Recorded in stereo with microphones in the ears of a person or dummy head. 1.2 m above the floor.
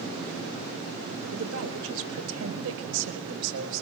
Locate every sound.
1.3 s a woman speaking: 75° right (ahead or behind), 4.5 m; by 3.8 s 70° right (ahead or behind), 6 m